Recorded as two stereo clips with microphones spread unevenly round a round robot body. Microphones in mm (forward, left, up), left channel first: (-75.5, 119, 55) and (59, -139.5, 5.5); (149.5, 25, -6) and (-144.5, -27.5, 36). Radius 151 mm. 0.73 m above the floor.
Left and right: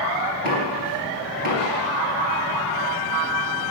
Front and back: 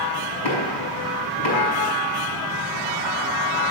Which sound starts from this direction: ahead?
Knocking, at 0.4 s.